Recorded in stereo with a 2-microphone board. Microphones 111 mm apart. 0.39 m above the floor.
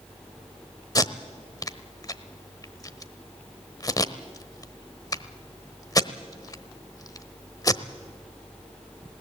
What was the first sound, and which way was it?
Tape being pulled, 30° left (ahead or behind).